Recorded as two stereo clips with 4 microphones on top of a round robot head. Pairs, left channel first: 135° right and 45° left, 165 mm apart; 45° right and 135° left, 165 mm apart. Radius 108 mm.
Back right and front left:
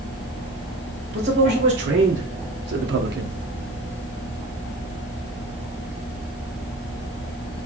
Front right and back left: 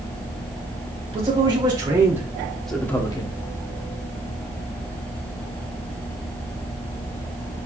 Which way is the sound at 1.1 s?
75° left.